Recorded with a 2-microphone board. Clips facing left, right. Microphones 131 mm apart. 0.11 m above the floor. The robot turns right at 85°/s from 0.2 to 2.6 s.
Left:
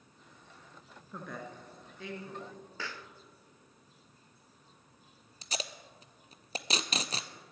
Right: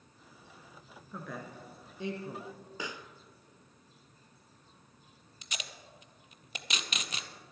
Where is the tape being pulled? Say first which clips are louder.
Left 6 dB; 35° left (ahead or behind), 0.7 m.